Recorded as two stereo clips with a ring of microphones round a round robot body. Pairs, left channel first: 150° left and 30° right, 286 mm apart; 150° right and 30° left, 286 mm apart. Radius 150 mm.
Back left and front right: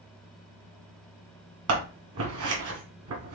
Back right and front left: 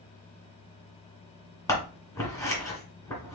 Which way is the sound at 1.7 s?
70° right.